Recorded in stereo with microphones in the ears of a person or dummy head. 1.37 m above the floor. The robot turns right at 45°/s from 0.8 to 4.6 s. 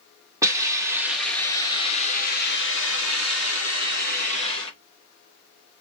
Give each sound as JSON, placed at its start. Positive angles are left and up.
{"t": 0.4, "sound": "a hiss", "azimuth_deg": -20, "distance_m": 1.3}